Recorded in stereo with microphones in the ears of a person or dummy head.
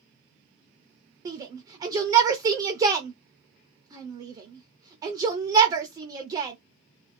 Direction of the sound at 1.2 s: 20° right (ahead or behind).